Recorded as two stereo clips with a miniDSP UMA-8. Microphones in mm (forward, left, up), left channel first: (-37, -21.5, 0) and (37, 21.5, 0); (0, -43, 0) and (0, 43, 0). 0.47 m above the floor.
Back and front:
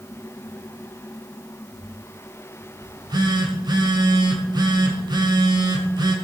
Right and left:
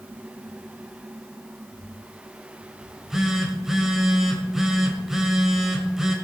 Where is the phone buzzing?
5° left, 1.9 m.